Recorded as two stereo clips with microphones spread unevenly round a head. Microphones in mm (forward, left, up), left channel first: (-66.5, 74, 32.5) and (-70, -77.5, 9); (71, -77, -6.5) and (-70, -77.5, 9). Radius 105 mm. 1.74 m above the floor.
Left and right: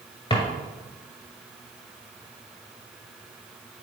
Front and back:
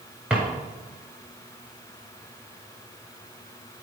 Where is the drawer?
115° left, 1.8 m.